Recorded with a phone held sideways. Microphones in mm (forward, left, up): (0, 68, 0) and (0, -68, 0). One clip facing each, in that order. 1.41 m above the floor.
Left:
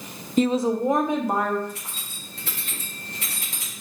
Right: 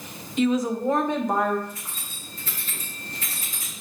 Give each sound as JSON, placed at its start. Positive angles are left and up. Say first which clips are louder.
{"t": 0.4, "sound": "a woman speaking", "louder": "left 2 dB", "side_deg": 40, "distance_m": 0.6}
{"t": 1.7, "sound": "keys jangling", "louder": "left 2 dB", "side_deg": 70, "distance_m": 1.6}